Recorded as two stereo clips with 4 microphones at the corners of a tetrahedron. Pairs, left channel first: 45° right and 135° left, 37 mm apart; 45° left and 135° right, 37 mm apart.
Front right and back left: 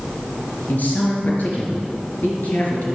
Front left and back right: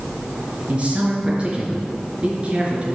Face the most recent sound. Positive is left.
turn(degrees=-75)